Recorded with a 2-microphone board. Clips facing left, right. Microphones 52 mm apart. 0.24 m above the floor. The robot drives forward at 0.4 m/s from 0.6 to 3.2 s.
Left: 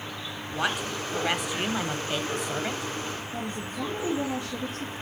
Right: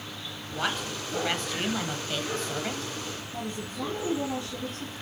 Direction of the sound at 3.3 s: 30° left (ahead or behind).